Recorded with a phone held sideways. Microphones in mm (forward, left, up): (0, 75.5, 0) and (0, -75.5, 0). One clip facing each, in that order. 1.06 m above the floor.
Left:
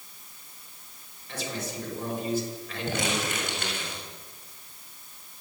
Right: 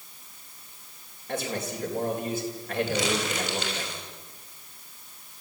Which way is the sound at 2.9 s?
50° left (ahead or behind).